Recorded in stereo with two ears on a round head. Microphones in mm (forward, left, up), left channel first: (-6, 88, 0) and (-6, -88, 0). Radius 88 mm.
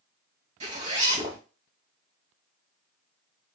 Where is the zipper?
35° right (ahead or behind), 2 m.